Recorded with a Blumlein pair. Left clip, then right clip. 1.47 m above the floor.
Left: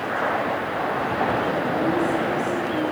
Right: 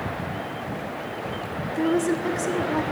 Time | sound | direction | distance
1.7 | a woman speaking | 70° right | 1.2 m